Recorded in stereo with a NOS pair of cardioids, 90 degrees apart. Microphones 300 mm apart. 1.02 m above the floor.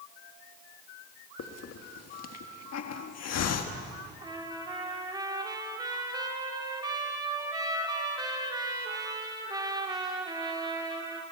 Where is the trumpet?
15° right, 3 m.